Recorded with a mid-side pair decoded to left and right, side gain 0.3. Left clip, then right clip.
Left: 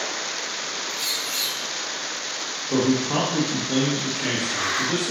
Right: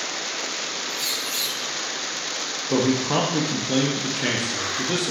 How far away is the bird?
About 2 m.